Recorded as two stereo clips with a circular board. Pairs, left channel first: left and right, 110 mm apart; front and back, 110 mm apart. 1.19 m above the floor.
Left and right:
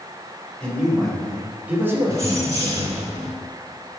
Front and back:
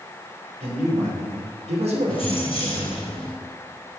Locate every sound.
0.6 s a man speaking: 170° left, 3 m; by 3.1 s 100° right, 1.6 m
2.1 s keys jangling: 30° right, 3 m